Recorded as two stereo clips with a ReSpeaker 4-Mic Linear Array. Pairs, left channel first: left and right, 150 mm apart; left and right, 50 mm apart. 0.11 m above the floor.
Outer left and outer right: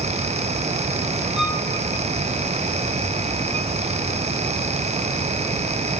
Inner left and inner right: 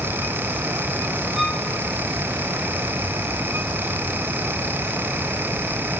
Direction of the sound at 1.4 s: 5° right (ahead or behind).